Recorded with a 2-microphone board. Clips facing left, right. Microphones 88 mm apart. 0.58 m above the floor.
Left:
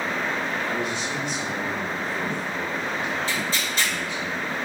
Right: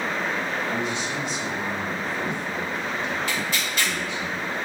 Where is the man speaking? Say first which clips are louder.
Even; 60° left (ahead or behind), 1.8 m; by 4.3 s 30° right (ahead or behind), 1.1 m.